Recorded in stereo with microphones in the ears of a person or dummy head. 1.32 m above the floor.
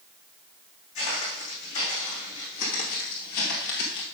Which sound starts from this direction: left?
Footsteps, at 0.9 s.